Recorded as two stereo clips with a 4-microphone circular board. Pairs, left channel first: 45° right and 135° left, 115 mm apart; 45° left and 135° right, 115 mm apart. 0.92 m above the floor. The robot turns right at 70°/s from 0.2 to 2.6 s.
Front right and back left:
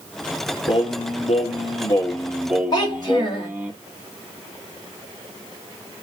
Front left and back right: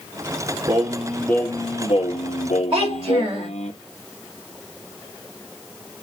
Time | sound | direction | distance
0.7 | singing | 80° right | 0.8 m
2.7 | a child speaking | 100° right | 1.8 m